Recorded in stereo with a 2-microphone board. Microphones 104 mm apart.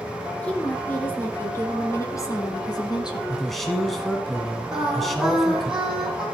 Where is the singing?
5° right (ahead or behind), 6 m.